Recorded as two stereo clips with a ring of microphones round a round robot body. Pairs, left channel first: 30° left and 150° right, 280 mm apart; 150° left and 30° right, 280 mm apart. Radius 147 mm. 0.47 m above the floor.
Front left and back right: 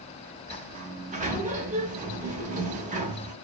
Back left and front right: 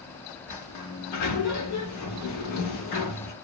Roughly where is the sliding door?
Behind left.